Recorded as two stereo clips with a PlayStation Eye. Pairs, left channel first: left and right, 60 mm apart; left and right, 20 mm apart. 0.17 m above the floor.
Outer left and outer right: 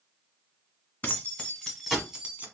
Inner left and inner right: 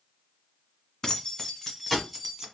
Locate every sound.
1.0 s keys jangling: 30° left (ahead or behind), 1.2 m; by 2.5 s 25° right (ahead or behind), 1.2 m